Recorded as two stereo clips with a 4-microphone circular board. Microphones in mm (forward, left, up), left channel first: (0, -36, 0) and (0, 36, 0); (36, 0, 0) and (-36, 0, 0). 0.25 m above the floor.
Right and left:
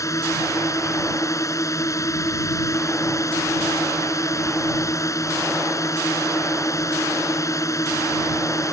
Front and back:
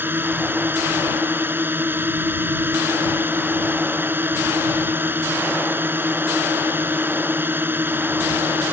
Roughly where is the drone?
Behind right.